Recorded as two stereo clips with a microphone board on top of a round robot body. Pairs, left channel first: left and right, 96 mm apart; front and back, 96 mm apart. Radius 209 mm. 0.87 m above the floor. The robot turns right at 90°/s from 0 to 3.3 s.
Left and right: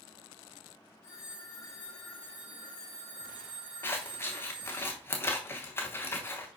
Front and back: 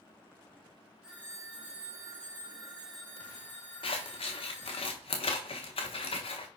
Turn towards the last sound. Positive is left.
turn(degrees=25)